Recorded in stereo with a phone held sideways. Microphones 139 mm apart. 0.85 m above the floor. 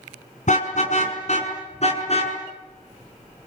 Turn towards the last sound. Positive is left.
turn(degrees=50)  # may be behind; listen again after turning